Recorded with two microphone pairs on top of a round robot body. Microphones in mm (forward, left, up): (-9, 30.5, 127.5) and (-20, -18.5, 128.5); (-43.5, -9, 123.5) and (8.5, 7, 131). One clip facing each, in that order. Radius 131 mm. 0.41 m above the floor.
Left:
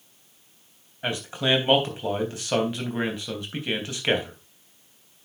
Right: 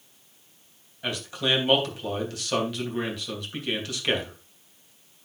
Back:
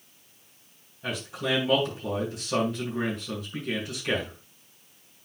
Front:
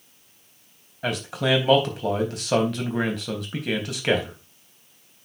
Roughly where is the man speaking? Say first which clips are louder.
Left 2 dB, front 6 dB; ahead.